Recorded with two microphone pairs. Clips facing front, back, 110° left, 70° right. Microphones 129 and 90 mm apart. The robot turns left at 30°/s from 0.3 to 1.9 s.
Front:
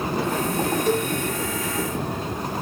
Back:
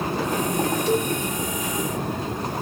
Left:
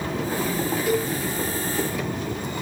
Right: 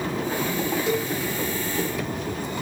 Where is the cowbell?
10° right, 1.8 m; by 1.1 s 15° right, 1.8 m.